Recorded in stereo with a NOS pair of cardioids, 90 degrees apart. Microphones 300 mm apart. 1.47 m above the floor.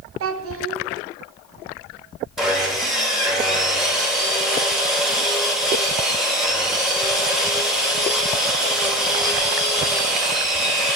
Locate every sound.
0.2 s a child speaking: 50° right, 0.8 m
2.4 s sawing: straight ahead, 1.6 m